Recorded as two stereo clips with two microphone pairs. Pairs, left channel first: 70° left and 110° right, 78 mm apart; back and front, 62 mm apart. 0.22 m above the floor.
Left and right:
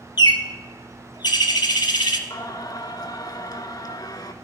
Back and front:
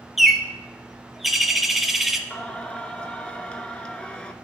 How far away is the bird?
About 0.6 m.